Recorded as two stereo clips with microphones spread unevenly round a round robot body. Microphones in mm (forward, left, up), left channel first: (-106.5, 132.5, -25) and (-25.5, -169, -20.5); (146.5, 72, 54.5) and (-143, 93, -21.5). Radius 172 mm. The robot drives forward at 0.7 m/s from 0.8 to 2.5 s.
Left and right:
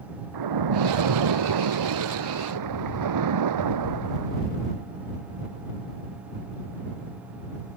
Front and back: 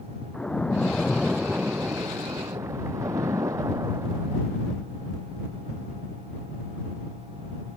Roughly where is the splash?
Right.